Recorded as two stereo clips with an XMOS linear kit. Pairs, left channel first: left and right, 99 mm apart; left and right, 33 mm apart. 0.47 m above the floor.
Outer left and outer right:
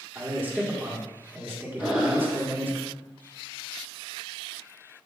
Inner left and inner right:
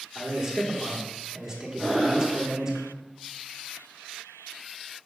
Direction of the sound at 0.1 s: 20° right (ahead or behind).